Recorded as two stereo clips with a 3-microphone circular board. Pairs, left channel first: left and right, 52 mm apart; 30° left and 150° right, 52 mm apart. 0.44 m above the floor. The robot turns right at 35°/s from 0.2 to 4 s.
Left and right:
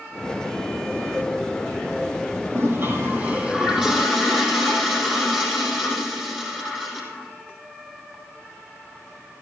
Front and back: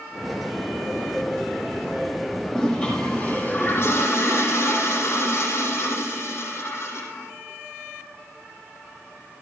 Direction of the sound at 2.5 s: 55° right.